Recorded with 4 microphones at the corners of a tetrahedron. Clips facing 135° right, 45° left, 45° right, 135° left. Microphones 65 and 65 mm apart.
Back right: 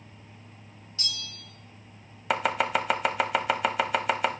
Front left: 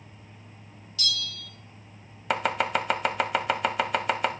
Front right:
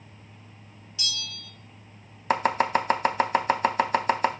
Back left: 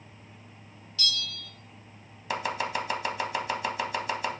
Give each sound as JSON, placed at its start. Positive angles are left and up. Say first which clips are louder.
{"t": 1.0, "sound": "a bell", "louder": "front left 6 dB, back left 2 dB", "azimuth_deg": -105, "distance_m": 0.7}
{"t": 2.3, "sound": "chopping", "louder": "even, front right 7 dB", "azimuth_deg": -50, "distance_m": 0.6}